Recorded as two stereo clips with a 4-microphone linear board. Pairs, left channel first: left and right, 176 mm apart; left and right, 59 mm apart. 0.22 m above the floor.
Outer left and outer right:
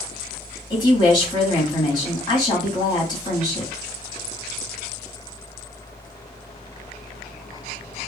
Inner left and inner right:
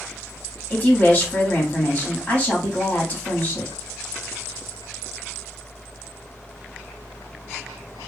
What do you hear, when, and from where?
0.7 s a woman speaking: 25° left (ahead or behind), 1.4 m